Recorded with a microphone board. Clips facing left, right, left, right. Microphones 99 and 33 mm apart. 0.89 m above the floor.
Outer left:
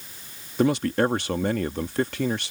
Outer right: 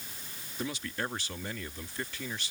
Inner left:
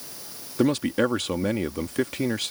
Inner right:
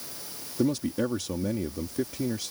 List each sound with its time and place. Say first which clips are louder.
0.6 s a man speaking: outer left 15 dB, inner left 5 dB; 65° left (ahead or behind)